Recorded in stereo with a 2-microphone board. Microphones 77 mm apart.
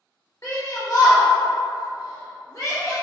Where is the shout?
45° left (ahead or behind), 1.3 m.